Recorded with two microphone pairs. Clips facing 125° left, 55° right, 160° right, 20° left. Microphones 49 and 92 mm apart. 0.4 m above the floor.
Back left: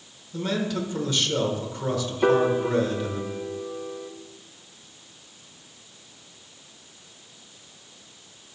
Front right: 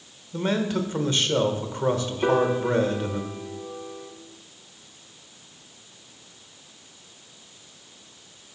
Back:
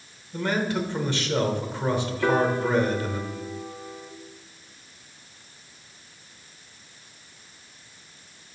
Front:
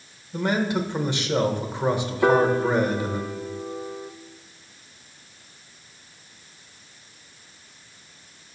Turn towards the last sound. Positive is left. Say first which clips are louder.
# back left 1 dB, front 4 dB
turn(degrees=55)